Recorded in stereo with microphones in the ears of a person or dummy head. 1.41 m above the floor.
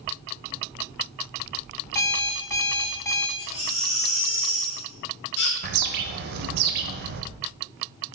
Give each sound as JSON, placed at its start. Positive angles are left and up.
{"t": 1.9, "sound": "an alarm clock", "side_deg": 10, "distance_m": 0.5}
{"t": 3.4, "sound": "a baby crying", "side_deg": 65, "distance_m": 4.0}
{"t": 5.6, "sound": "a bird", "side_deg": -60, "distance_m": 0.9}